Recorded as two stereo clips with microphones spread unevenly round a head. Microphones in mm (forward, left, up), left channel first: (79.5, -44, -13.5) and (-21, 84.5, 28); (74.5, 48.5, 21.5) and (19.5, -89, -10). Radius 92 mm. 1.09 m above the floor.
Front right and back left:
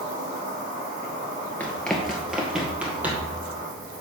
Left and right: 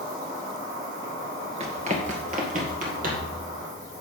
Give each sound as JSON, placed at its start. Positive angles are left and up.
{"t": 0.0, "sound": "an insect", "azimuth_deg": 180, "distance_m": 4.0}
{"t": 1.6, "sound": "running footsteps", "azimuth_deg": -150, "distance_m": 1.2}